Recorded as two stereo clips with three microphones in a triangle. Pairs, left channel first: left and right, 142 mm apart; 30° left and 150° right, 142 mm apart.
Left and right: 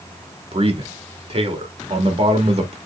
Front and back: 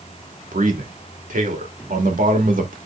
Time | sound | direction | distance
0.5 | a man speaking | 135° right | 2 m